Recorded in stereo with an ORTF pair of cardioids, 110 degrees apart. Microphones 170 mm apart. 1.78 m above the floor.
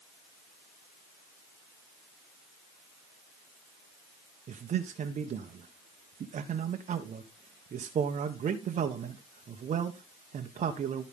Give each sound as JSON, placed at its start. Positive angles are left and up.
{"t": 4.5, "sound": "a man speaking", "azimuth_deg": -45, "distance_m": 1.4}